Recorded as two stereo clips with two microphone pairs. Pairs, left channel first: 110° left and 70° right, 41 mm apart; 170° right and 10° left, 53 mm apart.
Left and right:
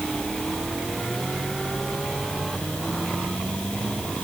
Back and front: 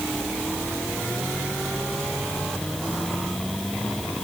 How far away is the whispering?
I don't hear whispering.